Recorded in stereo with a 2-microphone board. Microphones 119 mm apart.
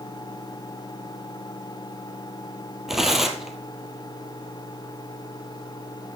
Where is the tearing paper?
Centre (ahead or behind), 1.4 m.